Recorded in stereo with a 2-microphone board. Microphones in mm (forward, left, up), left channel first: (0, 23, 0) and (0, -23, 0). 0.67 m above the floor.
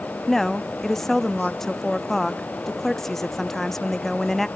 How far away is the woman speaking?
About 0.6 m.